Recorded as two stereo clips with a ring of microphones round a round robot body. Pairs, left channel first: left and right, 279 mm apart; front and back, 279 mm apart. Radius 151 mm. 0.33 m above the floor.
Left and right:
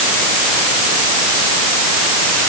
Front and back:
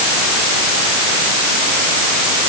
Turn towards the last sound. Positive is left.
No sound to turn to.